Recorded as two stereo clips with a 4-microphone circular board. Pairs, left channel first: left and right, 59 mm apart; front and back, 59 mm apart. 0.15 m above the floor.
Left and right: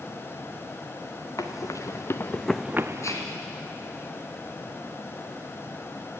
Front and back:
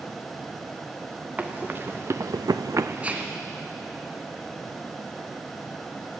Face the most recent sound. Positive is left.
turn(degrees=110)